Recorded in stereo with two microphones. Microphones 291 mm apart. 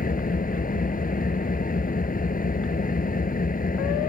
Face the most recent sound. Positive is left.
turn(degrees=30)  # may be behind; listen again after turning